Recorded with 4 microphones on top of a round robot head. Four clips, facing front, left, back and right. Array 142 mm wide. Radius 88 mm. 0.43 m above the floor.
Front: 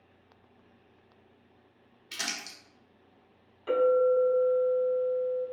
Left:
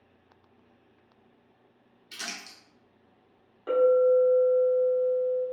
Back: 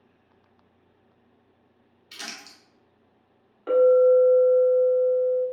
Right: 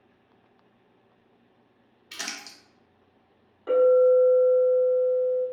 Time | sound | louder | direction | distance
2.1 | crumpling | right 2 dB, front 2 dB | 55° right | 1.0 m
3.7 | a clink | right 3 dB, back 7 dB | 175° left | 1.1 m